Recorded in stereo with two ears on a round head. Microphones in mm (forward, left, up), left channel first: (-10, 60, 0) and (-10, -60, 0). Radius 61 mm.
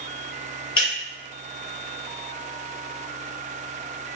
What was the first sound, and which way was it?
Breaking glass, 35° left (ahead or behind).